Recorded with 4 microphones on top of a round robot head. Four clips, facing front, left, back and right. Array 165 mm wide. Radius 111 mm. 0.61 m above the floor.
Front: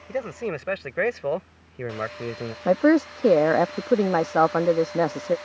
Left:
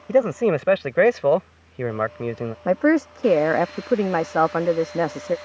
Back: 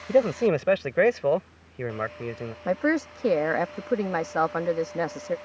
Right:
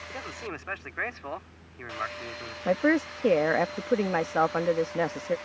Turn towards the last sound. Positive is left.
turn(degrees=40)